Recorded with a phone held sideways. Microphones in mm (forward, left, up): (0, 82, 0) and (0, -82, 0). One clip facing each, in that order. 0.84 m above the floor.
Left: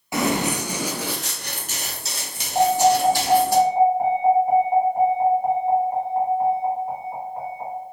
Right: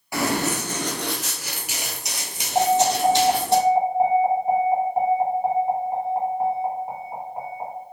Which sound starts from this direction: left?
Running footsteps, at 0.1 s.